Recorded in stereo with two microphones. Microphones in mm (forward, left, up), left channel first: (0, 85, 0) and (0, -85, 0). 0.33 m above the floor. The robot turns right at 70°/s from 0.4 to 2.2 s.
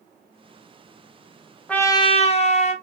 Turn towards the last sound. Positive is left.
turn(degrees=45)